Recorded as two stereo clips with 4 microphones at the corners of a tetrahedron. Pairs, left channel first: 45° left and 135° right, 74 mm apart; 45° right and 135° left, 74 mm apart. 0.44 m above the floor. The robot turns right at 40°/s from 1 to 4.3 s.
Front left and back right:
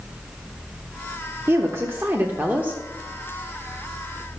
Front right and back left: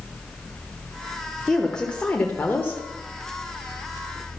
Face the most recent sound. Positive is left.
turn(degrees=-15)